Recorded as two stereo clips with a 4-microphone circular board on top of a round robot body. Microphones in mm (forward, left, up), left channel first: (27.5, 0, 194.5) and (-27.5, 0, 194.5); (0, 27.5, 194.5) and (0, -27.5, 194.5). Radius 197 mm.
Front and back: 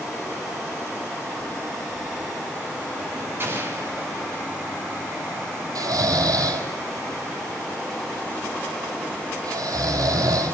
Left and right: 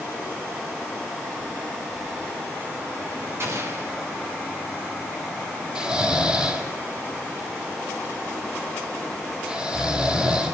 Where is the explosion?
130° right, 6.5 m.